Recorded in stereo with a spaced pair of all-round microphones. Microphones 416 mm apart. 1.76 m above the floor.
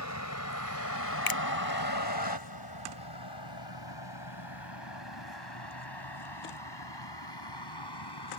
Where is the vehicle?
40° left (ahead or behind); by 8.4 s 70° left (ahead or behind).